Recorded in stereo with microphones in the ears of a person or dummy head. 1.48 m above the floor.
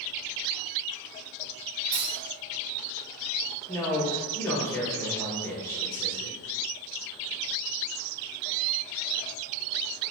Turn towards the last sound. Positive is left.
turn(degrees=15)  # may be behind; listen again after turning